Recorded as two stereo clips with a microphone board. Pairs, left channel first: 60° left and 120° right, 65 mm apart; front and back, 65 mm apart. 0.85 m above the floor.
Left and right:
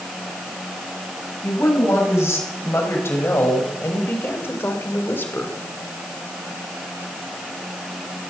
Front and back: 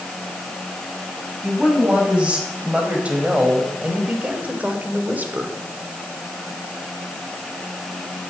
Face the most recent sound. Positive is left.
turn(degrees=115)